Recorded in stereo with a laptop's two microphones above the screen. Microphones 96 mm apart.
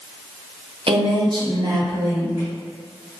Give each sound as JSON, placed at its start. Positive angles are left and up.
{"t": 0.9, "sound": "a woman speaking", "side_deg": -65, "distance_m": 0.5}